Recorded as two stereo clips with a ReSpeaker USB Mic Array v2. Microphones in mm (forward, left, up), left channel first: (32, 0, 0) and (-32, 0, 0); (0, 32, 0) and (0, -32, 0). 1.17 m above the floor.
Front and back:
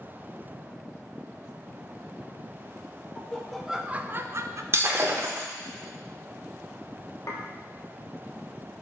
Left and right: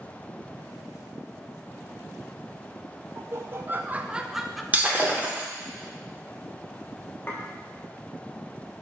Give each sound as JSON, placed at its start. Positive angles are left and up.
{"t": 3.1, "sound": "laughter", "azimuth_deg": -65, "distance_m": 0.6}
{"t": 4.7, "sound": "breaking glass", "azimuth_deg": -150, "distance_m": 1.0}
{"t": 7.3, "sound": "dishes clattering", "azimuth_deg": 30, "distance_m": 1.2}